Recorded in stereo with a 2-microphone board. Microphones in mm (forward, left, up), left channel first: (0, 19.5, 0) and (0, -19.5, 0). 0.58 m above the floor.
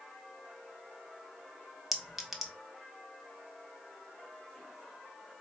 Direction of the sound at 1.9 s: 5° right (ahead or behind).